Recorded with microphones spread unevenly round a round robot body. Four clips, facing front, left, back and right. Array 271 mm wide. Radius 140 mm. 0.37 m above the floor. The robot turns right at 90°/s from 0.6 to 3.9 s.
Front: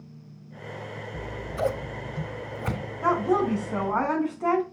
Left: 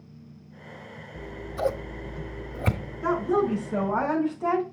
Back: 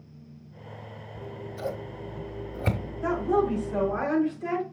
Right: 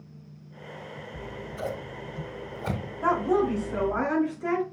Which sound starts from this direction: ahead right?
A woman speaking, at 3.0 s.